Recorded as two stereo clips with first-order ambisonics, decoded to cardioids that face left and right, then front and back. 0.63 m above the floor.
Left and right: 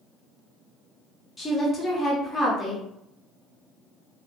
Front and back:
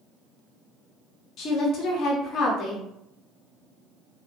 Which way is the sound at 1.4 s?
25° left.